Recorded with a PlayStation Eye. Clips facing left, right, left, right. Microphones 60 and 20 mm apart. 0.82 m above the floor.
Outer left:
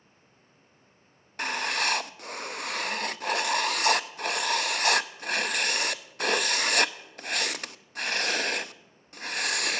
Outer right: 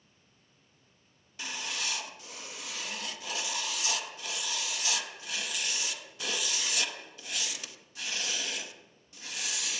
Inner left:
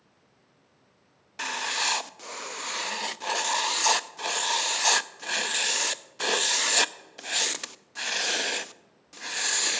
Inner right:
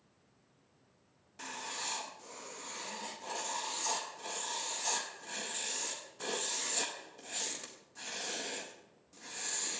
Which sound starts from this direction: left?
Writing, at 1.4 s.